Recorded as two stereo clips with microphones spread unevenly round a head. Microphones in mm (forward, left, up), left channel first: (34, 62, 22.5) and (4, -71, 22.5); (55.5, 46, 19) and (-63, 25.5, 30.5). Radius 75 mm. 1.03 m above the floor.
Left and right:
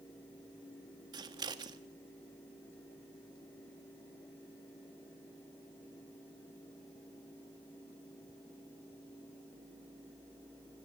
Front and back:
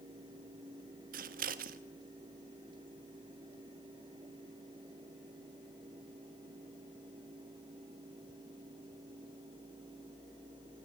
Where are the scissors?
165° right, 1.4 m.